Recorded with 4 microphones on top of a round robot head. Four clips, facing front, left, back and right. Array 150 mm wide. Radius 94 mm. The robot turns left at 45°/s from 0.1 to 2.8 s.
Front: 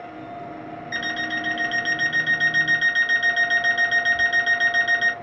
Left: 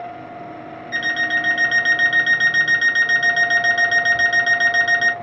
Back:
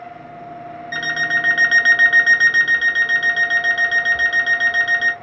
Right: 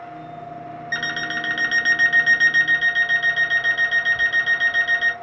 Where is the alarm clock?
140° right, 1.0 m; by 5.1 s 135° left, 1.0 m.